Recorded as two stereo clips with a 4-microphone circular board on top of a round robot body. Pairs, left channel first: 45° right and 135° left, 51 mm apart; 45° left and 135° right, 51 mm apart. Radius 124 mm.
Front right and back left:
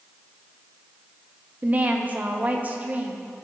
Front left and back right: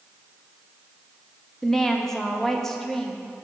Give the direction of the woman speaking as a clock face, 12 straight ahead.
8 o'clock.